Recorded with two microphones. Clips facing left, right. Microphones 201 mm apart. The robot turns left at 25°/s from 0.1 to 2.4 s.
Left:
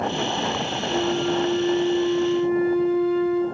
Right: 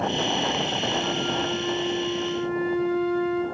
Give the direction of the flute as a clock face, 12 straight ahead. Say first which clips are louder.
Left 9 dB; 11 o'clock.